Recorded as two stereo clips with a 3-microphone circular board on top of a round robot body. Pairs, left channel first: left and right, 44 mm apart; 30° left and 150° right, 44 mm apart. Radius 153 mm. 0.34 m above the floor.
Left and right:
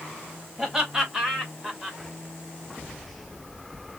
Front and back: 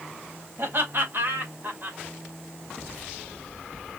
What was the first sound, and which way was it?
Laughter, 175° right.